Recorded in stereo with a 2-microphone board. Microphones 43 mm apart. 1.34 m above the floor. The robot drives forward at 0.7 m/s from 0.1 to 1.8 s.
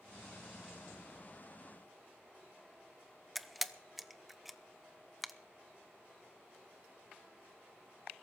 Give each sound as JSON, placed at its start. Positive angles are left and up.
{"t": 3.4, "sound": "a camera shutter", "side_deg": -5, "distance_m": 0.6}